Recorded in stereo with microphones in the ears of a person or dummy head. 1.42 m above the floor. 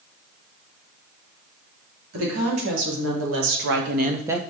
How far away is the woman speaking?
About 3.5 m.